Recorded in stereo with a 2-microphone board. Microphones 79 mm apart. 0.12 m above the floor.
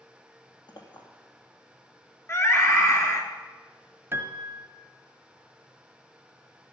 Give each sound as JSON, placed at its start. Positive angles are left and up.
{"t": 0.7, "sound": "a clink", "side_deg": 70, "distance_m": 3.0}
{"t": 2.3, "sound": "a scream", "side_deg": 35, "distance_m": 2.0}
{"t": 4.1, "sound": "a piano", "side_deg": -30, "distance_m": 1.3}